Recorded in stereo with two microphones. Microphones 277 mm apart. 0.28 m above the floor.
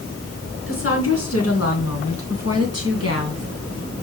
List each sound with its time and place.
0.7 s a woman speaking: 50° left (ahead or behind), 3.5 m